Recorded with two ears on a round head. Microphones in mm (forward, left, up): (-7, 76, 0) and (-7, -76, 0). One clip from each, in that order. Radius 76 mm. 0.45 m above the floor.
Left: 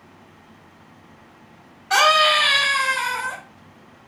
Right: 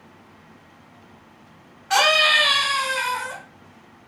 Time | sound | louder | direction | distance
1.9 | a scream | left 1 dB | 15° right (ahead or behind) | 1.9 m